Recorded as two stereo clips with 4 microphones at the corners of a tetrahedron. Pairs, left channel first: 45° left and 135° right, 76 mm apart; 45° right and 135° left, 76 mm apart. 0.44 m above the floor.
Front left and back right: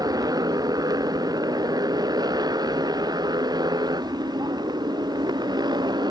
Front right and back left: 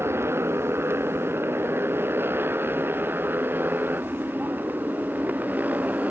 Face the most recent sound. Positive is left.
turn(degrees=-155)